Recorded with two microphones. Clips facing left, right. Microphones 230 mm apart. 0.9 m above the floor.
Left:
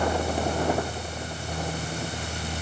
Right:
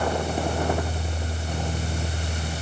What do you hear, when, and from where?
Only background noise.